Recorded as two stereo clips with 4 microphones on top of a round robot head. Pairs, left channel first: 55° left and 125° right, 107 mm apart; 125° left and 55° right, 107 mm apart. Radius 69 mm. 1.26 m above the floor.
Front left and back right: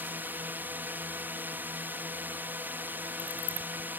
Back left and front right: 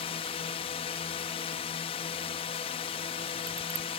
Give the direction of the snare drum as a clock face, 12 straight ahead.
No snare drum in this recording.